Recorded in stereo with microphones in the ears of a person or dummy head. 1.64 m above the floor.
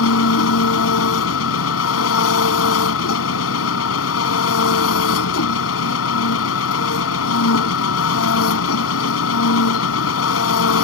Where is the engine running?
80° left.